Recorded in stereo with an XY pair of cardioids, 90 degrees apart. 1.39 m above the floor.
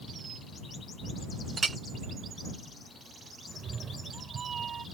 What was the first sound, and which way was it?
A clink, 35° right.